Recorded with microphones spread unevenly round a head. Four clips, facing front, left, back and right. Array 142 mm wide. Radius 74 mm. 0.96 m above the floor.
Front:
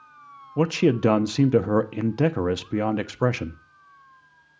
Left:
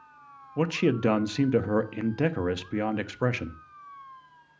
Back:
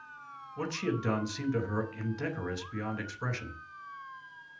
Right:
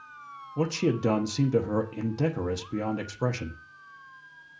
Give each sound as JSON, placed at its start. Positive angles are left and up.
{"t": 0.6, "sound": "a man speaking", "azimuth_deg": 5, "distance_m": 1.2}